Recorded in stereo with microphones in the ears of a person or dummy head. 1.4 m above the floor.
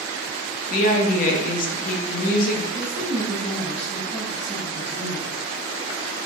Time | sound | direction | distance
0.7 | a woman speaking | 50° left (ahead or behind) | 0.7 m
2.7 | a woman speaking | 10° left (ahead or behind) | 1.2 m